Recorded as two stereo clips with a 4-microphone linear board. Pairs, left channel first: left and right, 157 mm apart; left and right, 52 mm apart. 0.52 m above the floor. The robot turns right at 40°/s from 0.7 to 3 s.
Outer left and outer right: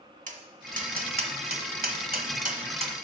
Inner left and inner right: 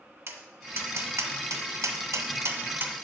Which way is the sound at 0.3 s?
55° right (ahead or behind).